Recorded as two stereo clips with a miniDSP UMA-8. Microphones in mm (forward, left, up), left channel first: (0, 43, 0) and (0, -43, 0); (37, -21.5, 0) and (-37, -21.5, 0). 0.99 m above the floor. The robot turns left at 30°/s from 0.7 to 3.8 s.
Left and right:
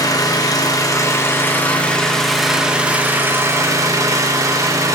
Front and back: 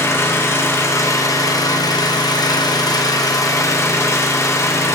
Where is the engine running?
50° left, 0.9 m; by 5.0 s 45° right, 0.9 m.